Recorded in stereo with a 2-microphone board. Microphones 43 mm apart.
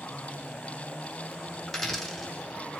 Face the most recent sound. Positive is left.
turn(degrees=5)  # may be behind; listen again after turning